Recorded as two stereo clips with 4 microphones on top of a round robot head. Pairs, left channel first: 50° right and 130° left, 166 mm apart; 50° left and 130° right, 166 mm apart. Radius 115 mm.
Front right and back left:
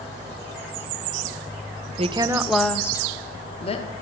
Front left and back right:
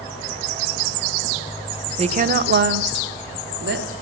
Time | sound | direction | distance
2.0 | a woman speaking | straight behind | 0.7 m